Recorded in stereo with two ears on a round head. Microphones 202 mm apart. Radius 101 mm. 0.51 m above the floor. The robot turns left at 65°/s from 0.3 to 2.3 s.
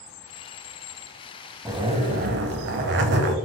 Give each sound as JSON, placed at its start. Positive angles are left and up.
{"t": 1.6, "sound": "a zipper", "azimuth_deg": -10, "distance_m": 0.6}